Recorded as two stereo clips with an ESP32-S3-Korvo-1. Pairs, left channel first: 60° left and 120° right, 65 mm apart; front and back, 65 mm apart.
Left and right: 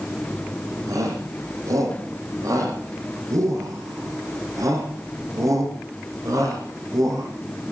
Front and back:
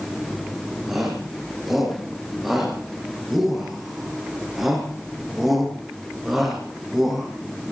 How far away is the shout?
About 5.5 m.